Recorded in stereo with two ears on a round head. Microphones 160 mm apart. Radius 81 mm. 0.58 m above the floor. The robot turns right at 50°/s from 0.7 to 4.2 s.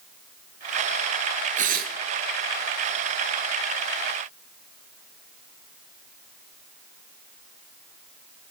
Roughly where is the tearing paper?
Right.